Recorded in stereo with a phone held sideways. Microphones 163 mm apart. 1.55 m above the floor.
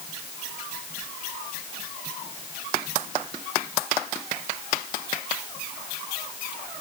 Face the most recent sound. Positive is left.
No sound to turn to.